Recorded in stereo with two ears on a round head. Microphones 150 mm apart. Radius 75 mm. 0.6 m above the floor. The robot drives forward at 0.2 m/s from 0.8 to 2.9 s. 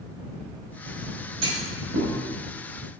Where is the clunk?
80° right, 3.5 m.